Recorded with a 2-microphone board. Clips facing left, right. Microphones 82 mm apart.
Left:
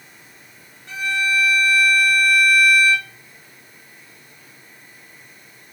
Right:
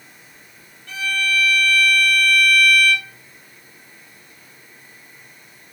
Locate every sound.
0.9 s a violin: 25° left (ahead or behind), 1.3 m